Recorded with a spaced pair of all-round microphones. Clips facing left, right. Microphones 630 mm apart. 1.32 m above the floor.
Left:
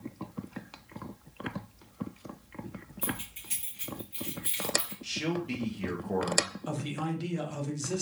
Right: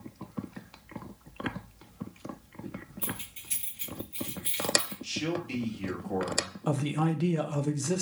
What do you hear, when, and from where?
3.0 s keys jangling: 65° left (ahead or behind), 1.9 m
5.0 s a man speaking: 75° left (ahead or behind), 1.3 m
6.7 s a man speaking: 75° right (ahead or behind), 0.7 m